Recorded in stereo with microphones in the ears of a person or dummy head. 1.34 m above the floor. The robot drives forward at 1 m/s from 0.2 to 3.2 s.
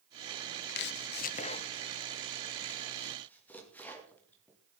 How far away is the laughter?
I don't hear laughter.